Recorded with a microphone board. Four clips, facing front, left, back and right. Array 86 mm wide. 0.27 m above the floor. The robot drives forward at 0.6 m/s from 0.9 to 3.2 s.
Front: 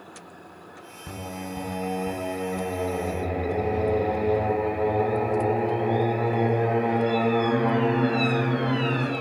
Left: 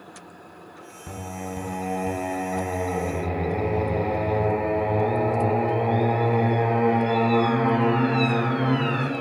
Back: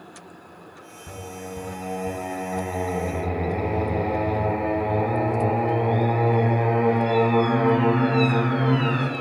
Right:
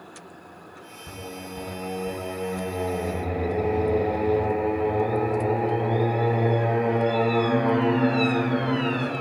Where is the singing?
45° left, 0.9 m; by 9.1 s 140° left, 1.0 m.